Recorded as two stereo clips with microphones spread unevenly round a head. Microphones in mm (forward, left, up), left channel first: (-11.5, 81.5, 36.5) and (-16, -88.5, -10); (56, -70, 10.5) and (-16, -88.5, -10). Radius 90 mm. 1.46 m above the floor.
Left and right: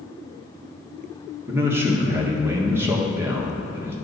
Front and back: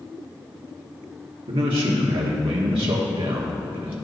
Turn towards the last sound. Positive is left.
turn(degrees=-175)